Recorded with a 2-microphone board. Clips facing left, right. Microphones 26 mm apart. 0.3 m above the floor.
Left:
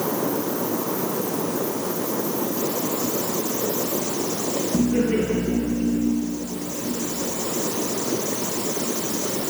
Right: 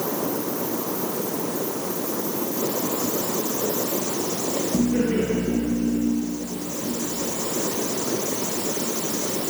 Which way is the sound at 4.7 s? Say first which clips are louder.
Left 1 dB; 60° left (ahead or behind).